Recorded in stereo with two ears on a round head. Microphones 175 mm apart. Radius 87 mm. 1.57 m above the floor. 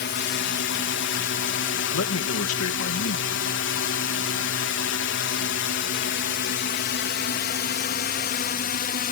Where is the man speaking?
80° left.